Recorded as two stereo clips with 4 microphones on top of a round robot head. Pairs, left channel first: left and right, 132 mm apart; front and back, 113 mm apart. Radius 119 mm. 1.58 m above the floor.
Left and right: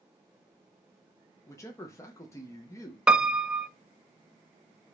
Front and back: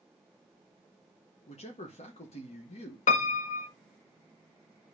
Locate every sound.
1.5 s a man speaking: 25° left, 1.3 m
3.1 s a piano: 5° right, 0.7 m